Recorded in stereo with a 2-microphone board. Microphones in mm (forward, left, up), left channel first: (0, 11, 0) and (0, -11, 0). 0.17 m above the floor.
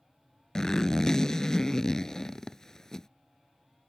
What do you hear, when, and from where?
0.6 s a zipper: 30° left (ahead or behind)